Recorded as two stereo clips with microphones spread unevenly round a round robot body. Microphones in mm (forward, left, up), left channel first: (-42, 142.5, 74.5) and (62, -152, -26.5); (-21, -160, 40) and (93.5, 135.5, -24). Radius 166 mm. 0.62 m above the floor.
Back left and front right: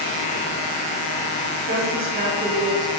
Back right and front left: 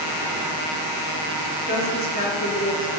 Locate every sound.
1.7 s a woman speaking: 50° right, 1.7 m